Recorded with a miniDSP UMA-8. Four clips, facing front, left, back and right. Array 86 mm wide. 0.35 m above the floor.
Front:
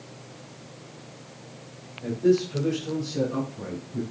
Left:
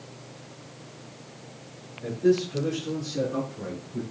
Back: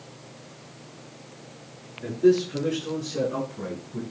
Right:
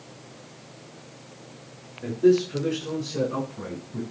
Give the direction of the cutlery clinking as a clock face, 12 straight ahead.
I don't hear cutlery clinking.